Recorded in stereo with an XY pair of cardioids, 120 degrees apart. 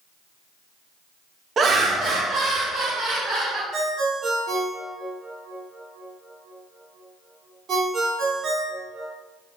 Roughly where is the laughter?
Ahead right.